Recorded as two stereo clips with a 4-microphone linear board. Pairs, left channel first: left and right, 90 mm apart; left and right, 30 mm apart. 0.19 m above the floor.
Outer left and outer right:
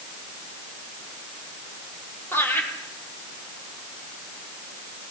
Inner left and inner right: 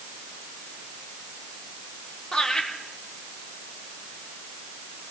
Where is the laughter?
25° left (ahead or behind), 5.5 m.